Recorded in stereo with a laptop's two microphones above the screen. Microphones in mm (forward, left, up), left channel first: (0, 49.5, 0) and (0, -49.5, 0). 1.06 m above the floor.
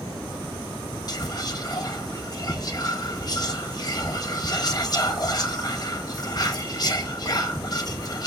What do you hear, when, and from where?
1.1 s whispering: 40° left (ahead or behind), 0.9 m